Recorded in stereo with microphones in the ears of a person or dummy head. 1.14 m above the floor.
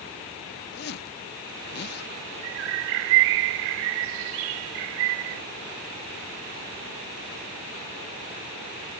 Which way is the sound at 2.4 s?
65° right (ahead or behind).